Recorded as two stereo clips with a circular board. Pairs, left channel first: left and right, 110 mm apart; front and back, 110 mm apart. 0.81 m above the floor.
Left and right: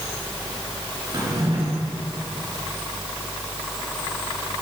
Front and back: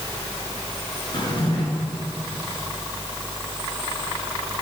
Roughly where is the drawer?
Ahead right.